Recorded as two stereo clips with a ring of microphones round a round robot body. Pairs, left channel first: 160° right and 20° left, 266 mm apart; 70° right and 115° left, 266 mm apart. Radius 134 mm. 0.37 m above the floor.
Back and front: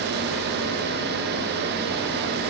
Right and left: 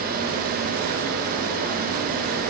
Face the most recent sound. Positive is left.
No sound to turn to.